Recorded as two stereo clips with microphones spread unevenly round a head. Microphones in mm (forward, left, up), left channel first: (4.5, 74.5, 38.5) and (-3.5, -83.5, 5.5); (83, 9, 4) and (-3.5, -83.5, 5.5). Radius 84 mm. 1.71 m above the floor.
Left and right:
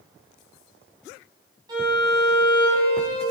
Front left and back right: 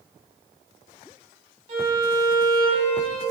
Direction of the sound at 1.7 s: 165° right.